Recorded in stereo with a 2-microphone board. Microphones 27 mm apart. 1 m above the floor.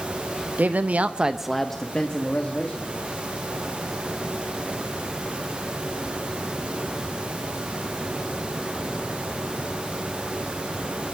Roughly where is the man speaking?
Right.